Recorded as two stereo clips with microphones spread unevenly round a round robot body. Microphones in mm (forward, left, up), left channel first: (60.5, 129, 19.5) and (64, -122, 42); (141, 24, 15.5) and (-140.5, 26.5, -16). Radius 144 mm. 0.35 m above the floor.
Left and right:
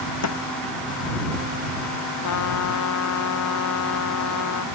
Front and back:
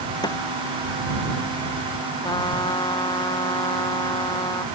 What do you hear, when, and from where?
0.2 s a snare drum: 75° left
2.2 s a trumpet: 75° left